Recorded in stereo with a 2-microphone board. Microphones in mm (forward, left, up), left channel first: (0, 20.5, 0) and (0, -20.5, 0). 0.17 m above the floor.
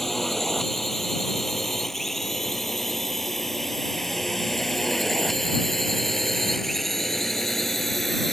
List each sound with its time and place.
0.0 s a drone: 5° left (ahead or behind)